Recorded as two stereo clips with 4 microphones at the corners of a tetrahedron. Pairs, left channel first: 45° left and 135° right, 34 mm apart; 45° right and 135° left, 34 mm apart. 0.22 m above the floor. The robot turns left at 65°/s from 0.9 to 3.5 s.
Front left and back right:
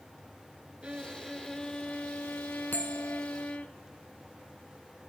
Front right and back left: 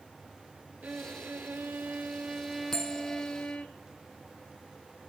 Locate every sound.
0.8 s a violin: 165° left, 0.9 m; by 3.7 s straight ahead, 0.9 m
2.7 s a bell: 30° left, 1.6 m; by 3.2 s 5° right, 1.6 m